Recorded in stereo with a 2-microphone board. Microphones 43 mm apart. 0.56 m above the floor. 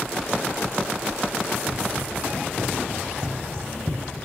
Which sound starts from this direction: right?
Running footsteps, at 1.7 s.